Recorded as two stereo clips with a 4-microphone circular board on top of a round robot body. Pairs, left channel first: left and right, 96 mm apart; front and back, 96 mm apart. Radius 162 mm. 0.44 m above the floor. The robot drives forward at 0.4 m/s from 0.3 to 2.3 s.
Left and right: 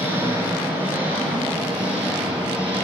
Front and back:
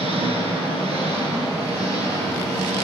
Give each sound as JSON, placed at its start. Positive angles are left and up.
{"t": 0.0, "sound": "an engine running", "azimuth_deg": -160, "distance_m": 2.5}